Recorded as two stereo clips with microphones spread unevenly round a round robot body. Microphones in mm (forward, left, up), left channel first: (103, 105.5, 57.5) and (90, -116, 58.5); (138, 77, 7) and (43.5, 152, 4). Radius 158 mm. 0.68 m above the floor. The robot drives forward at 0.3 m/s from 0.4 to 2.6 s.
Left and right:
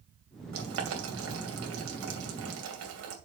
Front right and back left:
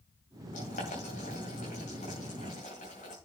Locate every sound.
0.5 s boiling: 80° right, 2.5 m; by 3.1 s 95° right, 2.5 m